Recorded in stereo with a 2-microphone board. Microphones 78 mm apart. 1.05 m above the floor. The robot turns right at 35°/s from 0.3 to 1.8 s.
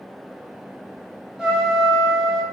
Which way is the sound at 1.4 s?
10° right (ahead or behind).